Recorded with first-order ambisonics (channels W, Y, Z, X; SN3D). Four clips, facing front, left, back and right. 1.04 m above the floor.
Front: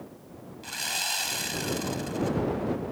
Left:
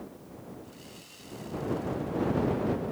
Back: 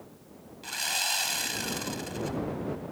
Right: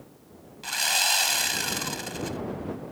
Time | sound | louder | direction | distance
0.6 | sawing | right 24 dB, back 1 dB | 90° right | ?